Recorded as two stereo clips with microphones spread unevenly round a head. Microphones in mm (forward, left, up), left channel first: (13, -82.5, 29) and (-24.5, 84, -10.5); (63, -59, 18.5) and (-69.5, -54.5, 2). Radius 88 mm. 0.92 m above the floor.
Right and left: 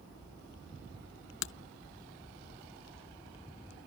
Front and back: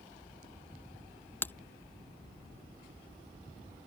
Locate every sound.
1.4 s breaking glass: 75° right